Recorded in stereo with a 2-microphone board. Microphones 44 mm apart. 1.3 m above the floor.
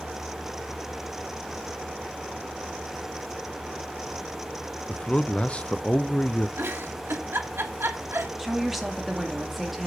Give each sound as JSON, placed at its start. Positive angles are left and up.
{"t": 4.9, "sound": "a man speaking", "side_deg": 25, "distance_m": 0.5}
{"t": 6.6, "sound": "a giggle", "side_deg": -60, "distance_m": 1.4}
{"t": 8.4, "sound": "a woman speaking", "side_deg": -5, "distance_m": 2.5}